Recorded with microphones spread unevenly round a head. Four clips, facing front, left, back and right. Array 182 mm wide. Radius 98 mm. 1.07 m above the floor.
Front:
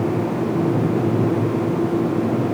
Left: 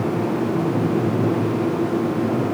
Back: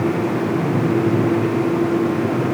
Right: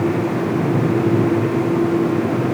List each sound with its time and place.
Only background noise.